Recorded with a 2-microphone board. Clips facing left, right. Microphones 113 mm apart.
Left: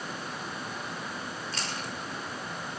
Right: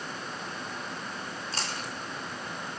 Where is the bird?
I don't hear a bird.